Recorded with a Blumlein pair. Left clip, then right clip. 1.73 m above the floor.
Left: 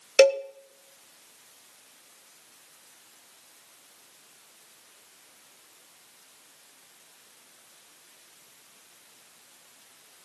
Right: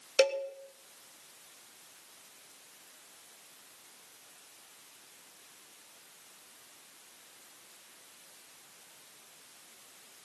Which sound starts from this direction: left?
A cowbell, at 0.2 s.